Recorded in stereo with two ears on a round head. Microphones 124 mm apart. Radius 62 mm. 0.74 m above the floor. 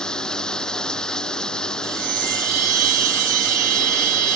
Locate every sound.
0.0 s running water: 5° left (ahead or behind)
1.8 s a chime: 65° right (ahead or behind)